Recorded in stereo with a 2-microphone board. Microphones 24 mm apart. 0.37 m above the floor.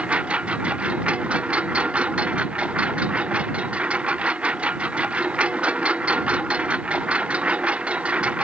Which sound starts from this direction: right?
A lawn mower, at 0.0 s.